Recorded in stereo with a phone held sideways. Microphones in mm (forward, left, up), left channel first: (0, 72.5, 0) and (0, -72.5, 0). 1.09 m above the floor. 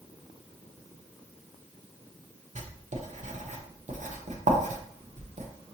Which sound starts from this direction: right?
Writing, at 2.5 s.